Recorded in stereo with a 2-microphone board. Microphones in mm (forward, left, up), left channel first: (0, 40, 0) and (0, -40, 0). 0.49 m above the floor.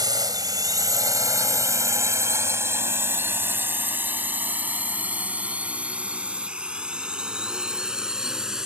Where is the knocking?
I don't hear knocking.